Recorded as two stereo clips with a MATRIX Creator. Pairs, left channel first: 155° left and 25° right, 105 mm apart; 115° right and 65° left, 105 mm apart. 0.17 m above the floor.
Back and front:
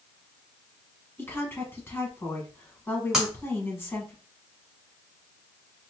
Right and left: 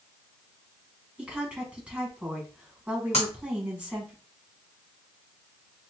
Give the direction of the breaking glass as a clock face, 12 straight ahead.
4 o'clock.